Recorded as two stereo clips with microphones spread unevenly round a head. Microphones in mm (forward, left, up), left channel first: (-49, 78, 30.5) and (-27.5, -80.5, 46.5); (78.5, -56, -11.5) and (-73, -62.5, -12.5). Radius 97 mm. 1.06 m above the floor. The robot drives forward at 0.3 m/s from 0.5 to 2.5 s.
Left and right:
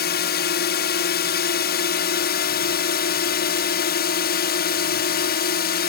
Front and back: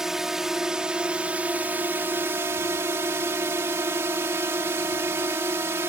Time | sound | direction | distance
0.0 | a drone | 95° left | ?